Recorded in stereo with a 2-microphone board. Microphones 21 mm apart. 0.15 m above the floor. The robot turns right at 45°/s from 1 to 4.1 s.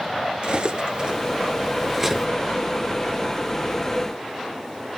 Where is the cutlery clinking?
45° right (ahead or behind), 1.5 m; by 2.3 s centre (ahead or behind), 1.5 m.